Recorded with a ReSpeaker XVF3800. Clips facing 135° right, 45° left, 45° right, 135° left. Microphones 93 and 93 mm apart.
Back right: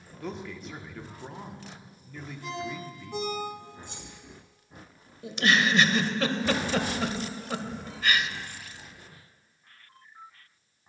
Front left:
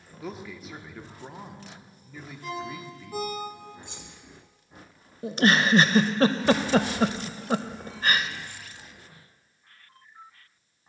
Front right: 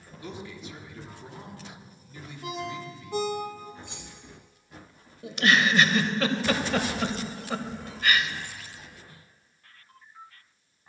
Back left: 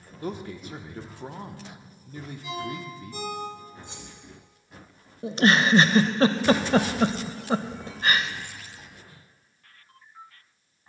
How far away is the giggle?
About 0.5 m.